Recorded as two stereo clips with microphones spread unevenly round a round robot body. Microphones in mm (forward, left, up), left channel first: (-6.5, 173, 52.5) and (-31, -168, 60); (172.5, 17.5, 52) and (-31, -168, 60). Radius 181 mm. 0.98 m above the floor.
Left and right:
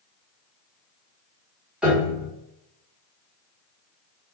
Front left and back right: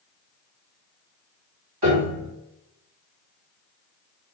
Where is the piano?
Straight behind, 1.1 m.